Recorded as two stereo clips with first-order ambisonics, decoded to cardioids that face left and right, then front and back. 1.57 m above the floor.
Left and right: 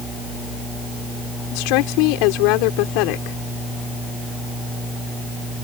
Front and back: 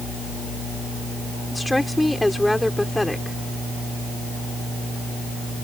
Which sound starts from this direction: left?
A woman speaking, at 1.5 s.